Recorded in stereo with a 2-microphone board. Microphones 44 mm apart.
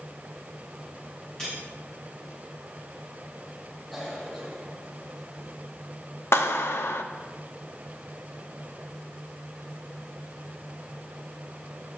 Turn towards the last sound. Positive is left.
turn(degrees=80)